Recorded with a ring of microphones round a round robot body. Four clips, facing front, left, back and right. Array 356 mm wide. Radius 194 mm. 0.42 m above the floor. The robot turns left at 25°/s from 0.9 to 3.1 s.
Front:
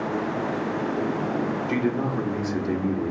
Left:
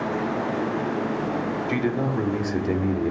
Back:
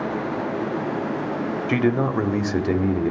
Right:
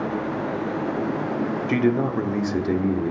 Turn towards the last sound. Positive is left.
turn(degrees=165)